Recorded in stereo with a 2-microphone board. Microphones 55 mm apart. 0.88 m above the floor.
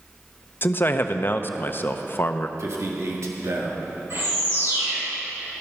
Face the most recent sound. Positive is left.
turn(degrees=-60)  # may be behind; listen again after turning